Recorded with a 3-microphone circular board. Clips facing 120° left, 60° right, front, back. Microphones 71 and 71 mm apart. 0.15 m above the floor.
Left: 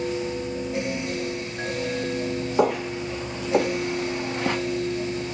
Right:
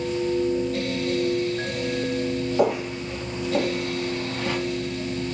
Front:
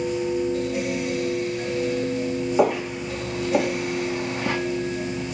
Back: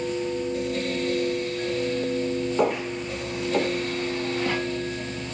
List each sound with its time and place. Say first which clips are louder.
2.6 s footsteps: left 2 dB, front 5 dB; 80° left, 2.5 m; by 4.6 s 65° left, 1.1 m